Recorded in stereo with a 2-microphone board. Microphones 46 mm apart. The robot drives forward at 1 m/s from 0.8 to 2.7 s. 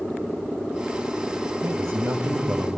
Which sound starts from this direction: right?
A man speaking, at 1.6 s.